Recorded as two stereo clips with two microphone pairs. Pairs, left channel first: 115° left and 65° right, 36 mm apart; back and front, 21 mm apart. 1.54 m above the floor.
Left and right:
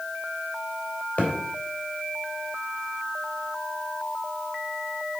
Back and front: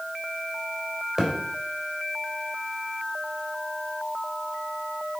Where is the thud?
60° left, 3 m.